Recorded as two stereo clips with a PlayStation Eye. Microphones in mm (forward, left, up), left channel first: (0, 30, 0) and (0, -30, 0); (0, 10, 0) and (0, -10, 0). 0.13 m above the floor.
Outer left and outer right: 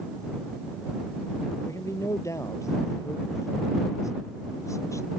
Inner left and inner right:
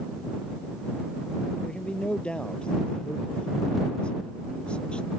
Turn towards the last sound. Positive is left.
turn(degrees=60)  # may be behind; listen again after turning